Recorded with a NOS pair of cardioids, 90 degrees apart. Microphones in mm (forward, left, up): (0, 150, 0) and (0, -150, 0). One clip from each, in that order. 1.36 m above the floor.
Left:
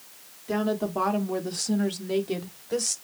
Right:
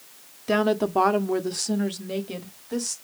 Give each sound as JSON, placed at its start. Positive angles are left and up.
{"t": 0.5, "sound": "a woman speaking", "azimuth_deg": -55, "distance_m": 0.9}